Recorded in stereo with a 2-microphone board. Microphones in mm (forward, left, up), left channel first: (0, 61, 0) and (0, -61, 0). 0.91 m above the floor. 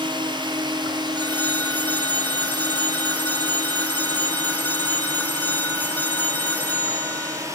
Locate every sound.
0.0 s a drone: 40° right (ahead or behind); by 7.5 s 25° right (ahead or behind)
1.1 s a phone ringing: 15° left (ahead or behind)